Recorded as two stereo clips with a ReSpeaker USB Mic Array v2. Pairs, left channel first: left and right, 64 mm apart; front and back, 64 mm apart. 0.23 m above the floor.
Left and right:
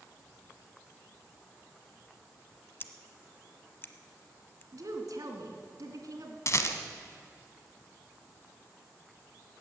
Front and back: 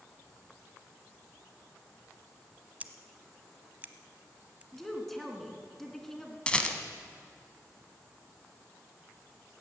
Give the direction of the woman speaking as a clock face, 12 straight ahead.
3 o'clock.